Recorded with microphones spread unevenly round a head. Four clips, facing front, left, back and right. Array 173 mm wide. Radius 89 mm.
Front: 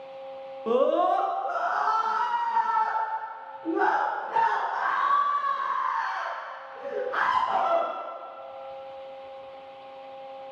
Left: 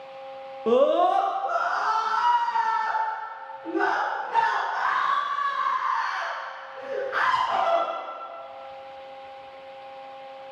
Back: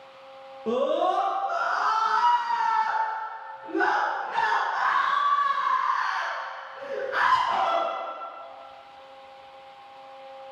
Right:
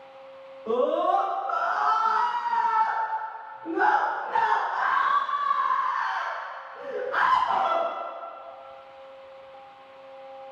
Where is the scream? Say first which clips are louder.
Left 4 dB, front 2 dB; 85° left, 0.6 m; by 7.8 s 35° right, 3.5 m.